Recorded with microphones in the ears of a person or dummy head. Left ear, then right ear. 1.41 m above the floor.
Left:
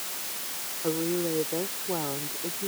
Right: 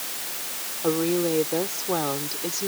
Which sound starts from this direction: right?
A woman speaking, at 0.8 s.